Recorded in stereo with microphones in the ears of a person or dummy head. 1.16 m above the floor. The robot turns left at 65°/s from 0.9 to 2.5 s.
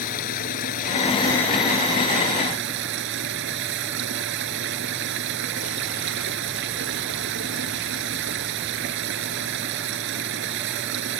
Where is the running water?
45° left; by 11.2 s 60° right.